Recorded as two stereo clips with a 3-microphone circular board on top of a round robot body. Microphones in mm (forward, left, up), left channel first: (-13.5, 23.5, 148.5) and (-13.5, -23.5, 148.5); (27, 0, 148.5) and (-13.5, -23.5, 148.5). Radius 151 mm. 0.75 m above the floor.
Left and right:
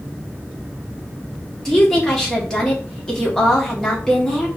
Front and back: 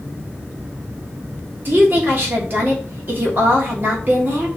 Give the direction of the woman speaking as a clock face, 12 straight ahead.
6 o'clock.